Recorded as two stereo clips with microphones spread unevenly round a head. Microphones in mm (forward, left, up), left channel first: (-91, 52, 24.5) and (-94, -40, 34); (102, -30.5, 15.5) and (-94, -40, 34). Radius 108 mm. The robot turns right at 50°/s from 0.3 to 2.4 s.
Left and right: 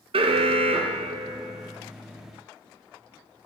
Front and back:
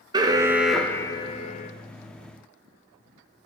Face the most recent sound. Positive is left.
turn(degrees=0)